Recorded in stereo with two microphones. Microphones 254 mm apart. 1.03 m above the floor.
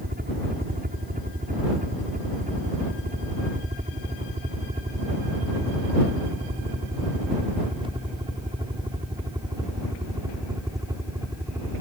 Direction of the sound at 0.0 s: 35° right (ahead or behind).